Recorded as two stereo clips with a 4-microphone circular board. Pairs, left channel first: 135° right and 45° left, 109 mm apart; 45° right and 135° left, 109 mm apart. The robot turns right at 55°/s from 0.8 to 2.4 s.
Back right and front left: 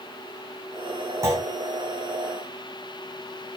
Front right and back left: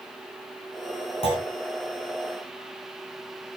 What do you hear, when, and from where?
1.2 s a clunk: 20° right, 4.5 m; by 1.5 s 10° right, 4.5 m